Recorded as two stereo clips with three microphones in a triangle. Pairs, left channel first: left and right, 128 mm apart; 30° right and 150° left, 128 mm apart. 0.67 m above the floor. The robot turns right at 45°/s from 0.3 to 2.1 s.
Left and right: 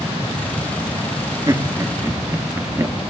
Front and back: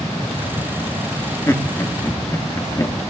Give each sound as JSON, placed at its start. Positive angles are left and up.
{"t": 1.5, "sound": "laughter", "azimuth_deg": -75, "distance_m": 1.3}